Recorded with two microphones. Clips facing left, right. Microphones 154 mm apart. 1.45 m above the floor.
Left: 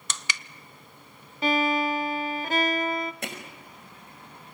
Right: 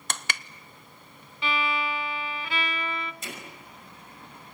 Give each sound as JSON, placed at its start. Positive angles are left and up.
{"t": 0.1, "sound": "crushing", "side_deg": -55, "distance_m": 0.8}
{"t": 1.4, "sound": "a violin", "side_deg": 45, "distance_m": 0.6}
{"t": 3.2, "sound": "hammering", "side_deg": 65, "distance_m": 5.0}